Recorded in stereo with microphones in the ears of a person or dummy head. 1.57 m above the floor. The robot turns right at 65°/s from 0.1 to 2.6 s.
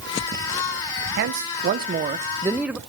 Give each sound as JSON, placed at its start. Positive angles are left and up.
{"t": 1.2, "sound": "a man speaking", "azimuth_deg": -105, "distance_m": 0.8}